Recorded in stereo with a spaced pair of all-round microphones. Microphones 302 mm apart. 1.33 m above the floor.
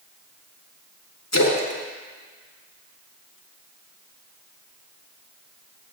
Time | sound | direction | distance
1.3 | a splash | 60° left (ahead or behind) | 1.6 m